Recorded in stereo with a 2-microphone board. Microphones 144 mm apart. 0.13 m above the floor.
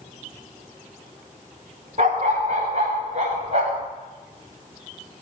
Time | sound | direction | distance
2.0 | a dog barking | 50° right (ahead or behind) | 5.5 m